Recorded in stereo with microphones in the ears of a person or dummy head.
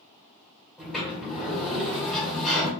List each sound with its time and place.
0.8 s a sliding door: centre (ahead or behind), 1.4 m